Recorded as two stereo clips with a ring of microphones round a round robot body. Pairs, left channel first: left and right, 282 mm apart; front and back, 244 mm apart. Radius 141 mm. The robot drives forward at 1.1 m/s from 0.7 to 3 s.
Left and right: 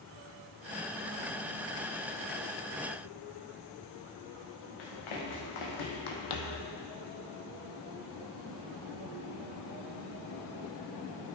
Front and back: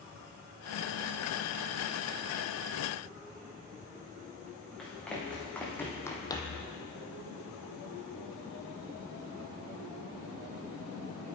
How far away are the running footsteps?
About 3.5 m.